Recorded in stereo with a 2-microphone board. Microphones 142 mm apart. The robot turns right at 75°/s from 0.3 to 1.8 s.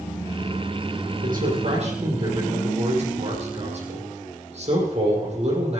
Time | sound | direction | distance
1.2 | a man speaking | 95° right | 5.5 m